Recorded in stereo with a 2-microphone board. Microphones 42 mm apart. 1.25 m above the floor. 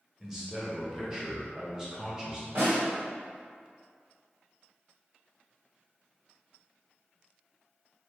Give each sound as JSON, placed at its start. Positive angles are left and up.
{"t": 0.2, "sound": "a man speaking", "side_deg": -15, "distance_m": 0.9}
{"t": 2.5, "sound": "a snare drum", "side_deg": -70, "distance_m": 1.8}